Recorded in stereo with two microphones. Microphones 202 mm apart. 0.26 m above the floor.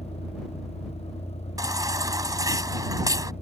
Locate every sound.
0.0 s a vehicle: 30° left (ahead or behind)
1.6 s a baby crying: 20° right (ahead or behind)